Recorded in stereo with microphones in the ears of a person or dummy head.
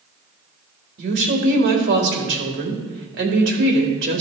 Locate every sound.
1.0 s a woman speaking: 65° right (ahead or behind), 1.8 m